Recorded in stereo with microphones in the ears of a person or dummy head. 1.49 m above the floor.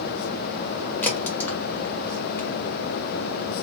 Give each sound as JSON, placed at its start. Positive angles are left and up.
{"t": 1.0, "sound": "a crack", "side_deg": 10, "distance_m": 1.5}